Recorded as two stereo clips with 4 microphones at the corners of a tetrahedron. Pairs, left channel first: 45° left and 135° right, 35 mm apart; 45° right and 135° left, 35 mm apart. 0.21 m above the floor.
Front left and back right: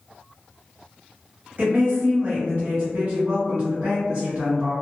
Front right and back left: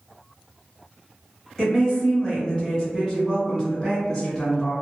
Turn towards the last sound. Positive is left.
turn(degrees=-145)